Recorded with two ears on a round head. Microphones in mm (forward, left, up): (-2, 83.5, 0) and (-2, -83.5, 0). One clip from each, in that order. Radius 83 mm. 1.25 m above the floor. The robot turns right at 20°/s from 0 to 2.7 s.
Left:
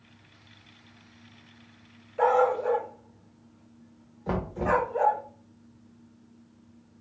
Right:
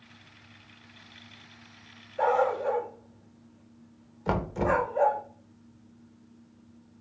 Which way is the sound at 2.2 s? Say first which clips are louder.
Left 2 dB; 15° left (ahead or behind).